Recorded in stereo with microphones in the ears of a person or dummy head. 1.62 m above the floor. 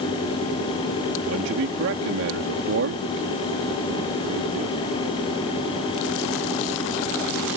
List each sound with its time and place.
1.2 s a man speaking: 70° right (ahead or behind)